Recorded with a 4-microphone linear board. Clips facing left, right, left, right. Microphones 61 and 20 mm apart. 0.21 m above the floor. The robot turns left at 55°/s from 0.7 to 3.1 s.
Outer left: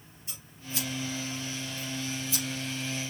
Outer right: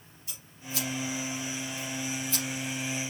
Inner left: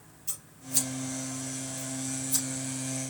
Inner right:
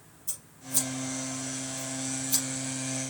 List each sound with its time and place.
0.3 s scissors: 35° left (ahead or behind), 3.5 m; by 2.5 s 55° right (ahead or behind), 3.5 m